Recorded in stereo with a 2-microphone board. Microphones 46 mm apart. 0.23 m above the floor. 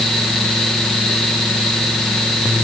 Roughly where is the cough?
No cough in this recording.